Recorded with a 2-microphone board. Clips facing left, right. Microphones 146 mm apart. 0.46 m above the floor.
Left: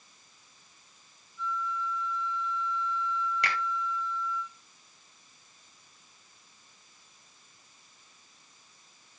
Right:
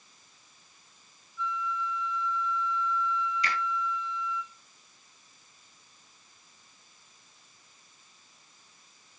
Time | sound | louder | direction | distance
1.4 | a flute | right 1 dB | 45° left (ahead or behind) | 2.5 m
3.4 | a finger snap | even | 70° left (ahead or behind) | 2.5 m